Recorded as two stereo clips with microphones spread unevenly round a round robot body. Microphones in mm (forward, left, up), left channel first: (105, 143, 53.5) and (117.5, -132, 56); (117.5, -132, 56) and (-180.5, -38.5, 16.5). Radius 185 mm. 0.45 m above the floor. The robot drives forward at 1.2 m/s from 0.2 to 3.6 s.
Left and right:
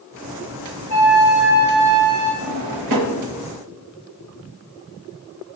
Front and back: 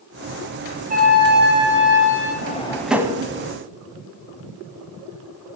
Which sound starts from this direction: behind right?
A flute, at 0.9 s.